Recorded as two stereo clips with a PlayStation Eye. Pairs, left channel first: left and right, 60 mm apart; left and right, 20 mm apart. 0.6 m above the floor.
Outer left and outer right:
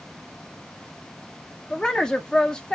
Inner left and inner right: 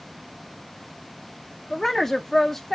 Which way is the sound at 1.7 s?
15° left (ahead or behind).